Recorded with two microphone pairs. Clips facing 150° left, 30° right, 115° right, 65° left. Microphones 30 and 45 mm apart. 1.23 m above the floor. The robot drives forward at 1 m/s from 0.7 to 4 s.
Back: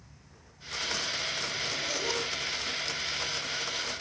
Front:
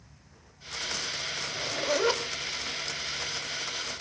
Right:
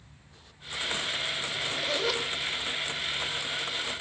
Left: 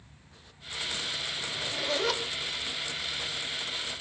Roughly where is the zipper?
Ahead.